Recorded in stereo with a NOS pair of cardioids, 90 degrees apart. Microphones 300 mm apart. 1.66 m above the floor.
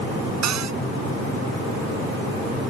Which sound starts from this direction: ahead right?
A cupboard door, at 0.4 s.